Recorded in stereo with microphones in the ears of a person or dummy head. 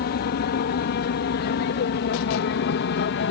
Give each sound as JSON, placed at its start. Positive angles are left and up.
{"t": 0.0, "sound": "an aircraft", "side_deg": 50}